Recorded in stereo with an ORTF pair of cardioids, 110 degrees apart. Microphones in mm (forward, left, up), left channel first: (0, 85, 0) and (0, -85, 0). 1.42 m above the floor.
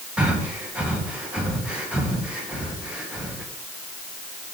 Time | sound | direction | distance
0.2 | breathing | 5° right | 1.4 m